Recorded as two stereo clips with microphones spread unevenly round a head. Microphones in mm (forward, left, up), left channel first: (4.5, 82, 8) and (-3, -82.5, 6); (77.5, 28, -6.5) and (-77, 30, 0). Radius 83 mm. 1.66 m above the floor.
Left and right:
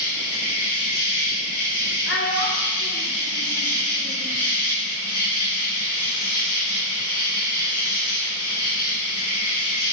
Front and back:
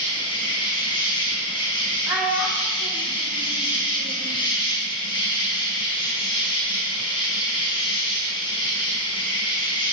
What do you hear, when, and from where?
0.0 s an insect: 60° left, 3.5 m
2.1 s a child speaking: 100° left, 2.5 m